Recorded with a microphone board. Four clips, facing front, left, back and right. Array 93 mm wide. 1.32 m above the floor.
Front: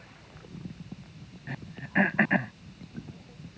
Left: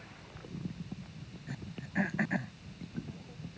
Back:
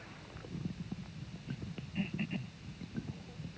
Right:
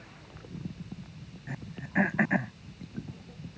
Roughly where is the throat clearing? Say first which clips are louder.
Right 5 dB, front 9 dB; ahead right.